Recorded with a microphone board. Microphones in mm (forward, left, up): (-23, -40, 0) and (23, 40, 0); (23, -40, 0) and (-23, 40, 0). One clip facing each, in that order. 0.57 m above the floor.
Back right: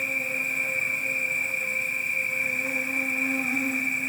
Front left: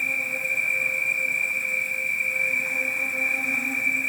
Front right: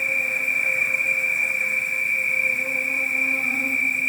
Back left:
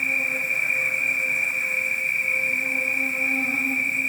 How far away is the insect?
About 0.9 m.